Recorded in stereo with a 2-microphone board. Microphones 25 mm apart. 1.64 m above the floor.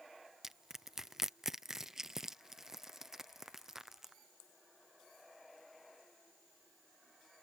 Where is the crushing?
20° right (ahead or behind).